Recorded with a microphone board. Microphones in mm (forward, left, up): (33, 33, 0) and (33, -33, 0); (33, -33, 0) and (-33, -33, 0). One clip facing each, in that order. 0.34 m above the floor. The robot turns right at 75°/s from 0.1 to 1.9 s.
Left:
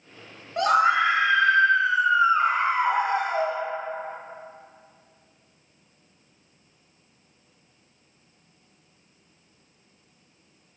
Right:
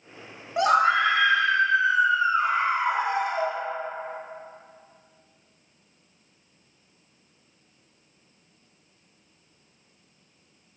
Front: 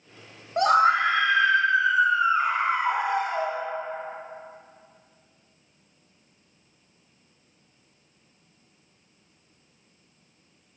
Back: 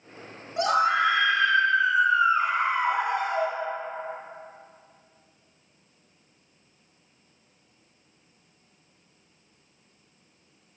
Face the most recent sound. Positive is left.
turn(degrees=85)